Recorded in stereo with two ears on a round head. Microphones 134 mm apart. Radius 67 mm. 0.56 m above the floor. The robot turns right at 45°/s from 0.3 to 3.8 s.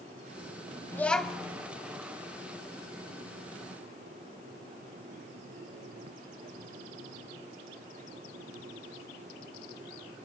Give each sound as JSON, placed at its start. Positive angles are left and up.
{"t": 0.9, "sound": "a child speaking", "side_deg": 15, "distance_m": 2.0}